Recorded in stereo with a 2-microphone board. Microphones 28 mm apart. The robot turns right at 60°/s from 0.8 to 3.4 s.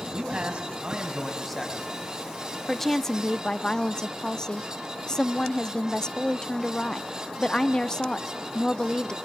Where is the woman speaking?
Centre (ahead or behind), 0.6 m; by 9.2 s 20° left (ahead or behind), 0.6 m.